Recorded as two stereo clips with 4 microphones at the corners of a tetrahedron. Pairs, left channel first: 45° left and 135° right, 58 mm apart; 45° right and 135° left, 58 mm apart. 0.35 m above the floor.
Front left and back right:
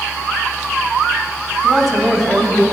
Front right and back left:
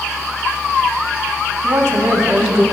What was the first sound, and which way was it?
A woman speaking, 140° left.